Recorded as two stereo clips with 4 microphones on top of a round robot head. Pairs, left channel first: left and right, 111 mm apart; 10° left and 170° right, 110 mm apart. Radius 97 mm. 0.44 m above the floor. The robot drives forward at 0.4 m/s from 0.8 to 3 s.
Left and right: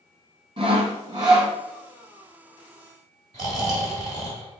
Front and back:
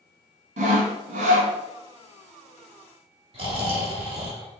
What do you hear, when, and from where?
0.6 s sawing: 145° right, 0.5 m; by 1.5 s 160° right, 0.8 m
3.3 s snoring: 140° right, 1.5 m